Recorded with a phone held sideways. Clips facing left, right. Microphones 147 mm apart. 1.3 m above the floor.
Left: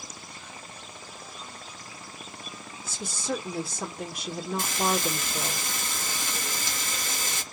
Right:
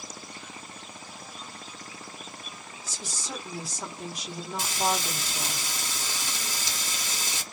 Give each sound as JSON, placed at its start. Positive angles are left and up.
{"t": 2.8, "sound": "a woman speaking", "side_deg": 60, "distance_m": 1.2}
{"t": 4.6, "sound": "frying", "side_deg": 55, "distance_m": 1.3}